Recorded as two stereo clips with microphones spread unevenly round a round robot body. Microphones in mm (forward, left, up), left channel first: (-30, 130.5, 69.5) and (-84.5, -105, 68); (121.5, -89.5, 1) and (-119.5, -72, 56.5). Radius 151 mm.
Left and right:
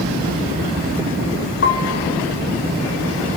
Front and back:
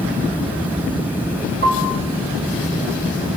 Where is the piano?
115° left, 4 m.